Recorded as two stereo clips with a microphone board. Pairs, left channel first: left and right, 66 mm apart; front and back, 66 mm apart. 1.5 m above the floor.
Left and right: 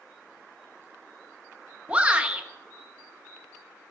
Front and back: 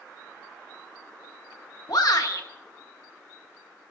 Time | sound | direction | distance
1.9 | a shout | 20° right | 1.3 m